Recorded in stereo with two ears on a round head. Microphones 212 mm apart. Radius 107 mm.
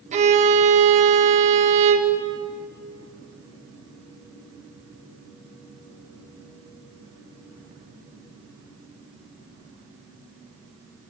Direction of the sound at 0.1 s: 30° right (ahead or behind).